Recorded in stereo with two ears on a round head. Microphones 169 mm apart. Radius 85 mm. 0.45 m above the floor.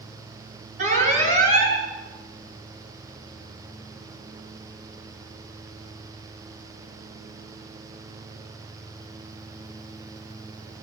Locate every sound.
0.8 s an alarm: 40° right (ahead or behind), 8 m